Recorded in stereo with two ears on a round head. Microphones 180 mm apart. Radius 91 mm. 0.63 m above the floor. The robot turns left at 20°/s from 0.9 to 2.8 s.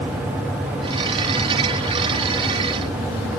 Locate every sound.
Only background noise.